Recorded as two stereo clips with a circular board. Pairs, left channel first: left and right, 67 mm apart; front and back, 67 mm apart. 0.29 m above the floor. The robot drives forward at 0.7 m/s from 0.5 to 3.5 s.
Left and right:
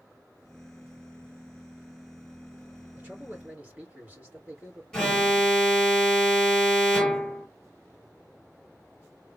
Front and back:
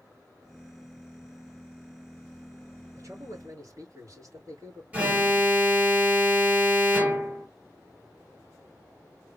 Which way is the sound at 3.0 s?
155° right.